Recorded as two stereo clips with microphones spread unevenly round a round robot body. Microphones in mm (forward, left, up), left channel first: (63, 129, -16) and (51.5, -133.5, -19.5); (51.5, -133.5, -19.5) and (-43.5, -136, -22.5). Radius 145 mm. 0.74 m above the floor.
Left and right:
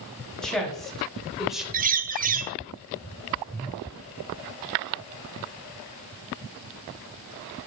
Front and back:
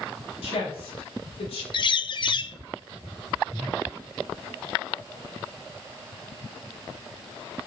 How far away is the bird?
About 0.6 m.